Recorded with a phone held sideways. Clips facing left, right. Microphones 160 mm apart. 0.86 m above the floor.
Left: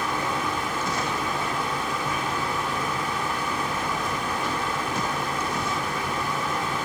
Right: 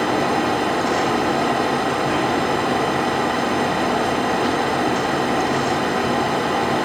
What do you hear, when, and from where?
0.0 s a fan: 70° right (ahead or behind), 1.1 m